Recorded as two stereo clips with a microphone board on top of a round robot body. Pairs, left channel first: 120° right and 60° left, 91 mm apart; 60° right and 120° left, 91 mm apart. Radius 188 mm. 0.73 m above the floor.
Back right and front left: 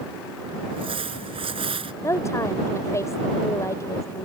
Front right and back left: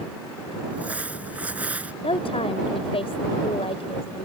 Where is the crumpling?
45° left.